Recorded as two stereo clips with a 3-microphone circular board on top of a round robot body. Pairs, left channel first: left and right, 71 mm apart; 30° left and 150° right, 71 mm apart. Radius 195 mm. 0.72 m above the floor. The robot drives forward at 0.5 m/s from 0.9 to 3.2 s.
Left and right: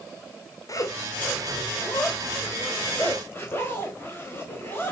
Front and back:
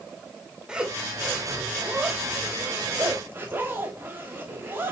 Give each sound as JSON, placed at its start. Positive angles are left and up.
{"t": 0.7, "sound": "a zipper", "azimuth_deg": 130, "distance_m": 1.9}